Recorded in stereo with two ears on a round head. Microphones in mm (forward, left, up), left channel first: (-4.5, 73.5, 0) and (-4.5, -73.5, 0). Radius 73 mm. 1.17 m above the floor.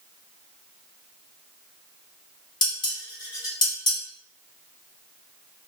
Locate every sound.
2.6 s dishes clattering: 30° left (ahead or behind), 1.4 m